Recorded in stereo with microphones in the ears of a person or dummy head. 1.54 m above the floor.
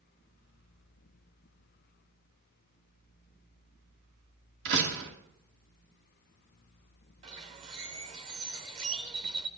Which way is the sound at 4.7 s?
65° right (ahead or behind).